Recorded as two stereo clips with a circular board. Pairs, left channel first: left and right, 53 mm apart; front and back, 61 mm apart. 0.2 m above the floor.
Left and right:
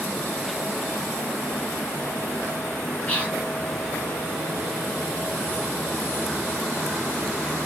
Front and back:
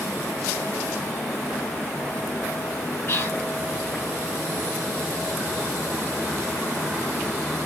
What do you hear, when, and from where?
3.1 s whispering: 30° left, 2 m